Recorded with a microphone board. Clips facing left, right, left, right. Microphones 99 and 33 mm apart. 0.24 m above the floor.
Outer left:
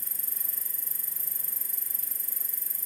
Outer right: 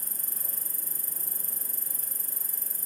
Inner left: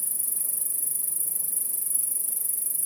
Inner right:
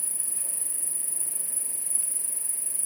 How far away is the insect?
About 0.7 m.